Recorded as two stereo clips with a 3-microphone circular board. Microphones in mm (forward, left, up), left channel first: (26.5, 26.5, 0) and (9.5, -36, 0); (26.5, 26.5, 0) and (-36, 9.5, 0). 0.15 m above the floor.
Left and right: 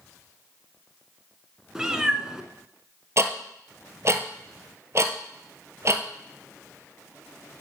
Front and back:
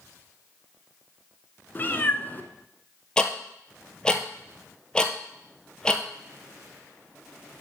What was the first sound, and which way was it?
A cat meowing, 30° right.